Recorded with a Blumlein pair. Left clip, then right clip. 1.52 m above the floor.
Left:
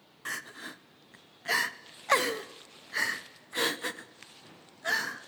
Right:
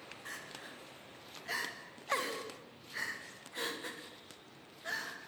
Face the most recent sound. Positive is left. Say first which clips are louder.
# left 10 dB
turn(degrees=60)